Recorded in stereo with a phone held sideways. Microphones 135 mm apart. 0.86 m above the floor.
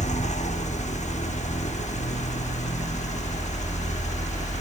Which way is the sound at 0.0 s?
60° left (ahead or behind).